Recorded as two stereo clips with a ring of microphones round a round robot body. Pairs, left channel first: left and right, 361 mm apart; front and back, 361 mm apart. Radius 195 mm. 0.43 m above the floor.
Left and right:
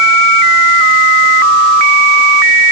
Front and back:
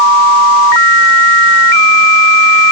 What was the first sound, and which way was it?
Only background noise.